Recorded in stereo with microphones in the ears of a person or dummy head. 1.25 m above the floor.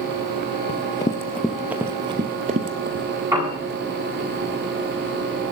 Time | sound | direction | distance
0.7 | running footsteps | 30° left (ahead or behind) | 1.4 m
3.3 | a piano | 15° right (ahead or behind) | 8.5 m